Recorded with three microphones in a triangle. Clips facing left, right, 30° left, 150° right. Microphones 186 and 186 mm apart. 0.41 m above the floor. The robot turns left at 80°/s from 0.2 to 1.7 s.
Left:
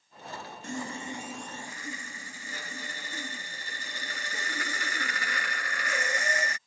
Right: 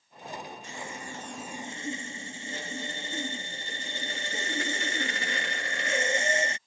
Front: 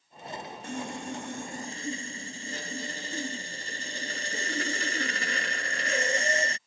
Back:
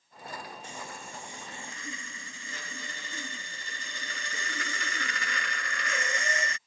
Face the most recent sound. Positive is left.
turn(degrees=-25)